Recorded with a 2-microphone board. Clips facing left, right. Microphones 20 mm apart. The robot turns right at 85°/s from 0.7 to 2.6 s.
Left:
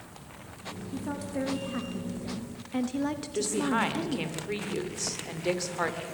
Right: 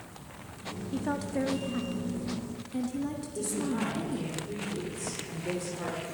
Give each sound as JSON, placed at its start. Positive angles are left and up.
{"t": 0.9, "sound": "a woman speaking", "azimuth_deg": -40, "distance_m": 0.9}
{"t": 3.3, "sound": "a woman speaking", "side_deg": 80, "distance_m": 2.0}